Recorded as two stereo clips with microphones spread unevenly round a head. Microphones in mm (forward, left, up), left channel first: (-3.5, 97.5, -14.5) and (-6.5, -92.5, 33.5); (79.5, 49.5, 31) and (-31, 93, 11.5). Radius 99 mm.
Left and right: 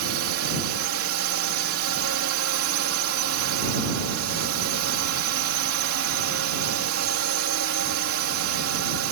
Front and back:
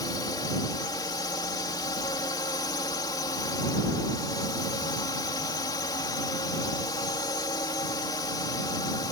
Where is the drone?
90° right.